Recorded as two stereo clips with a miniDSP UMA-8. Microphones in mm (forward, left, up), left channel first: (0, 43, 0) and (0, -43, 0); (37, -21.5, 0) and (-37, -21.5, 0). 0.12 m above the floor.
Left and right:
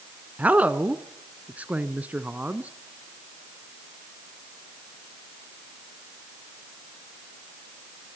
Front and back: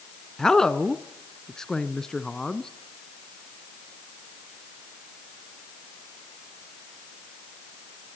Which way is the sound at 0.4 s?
65° right.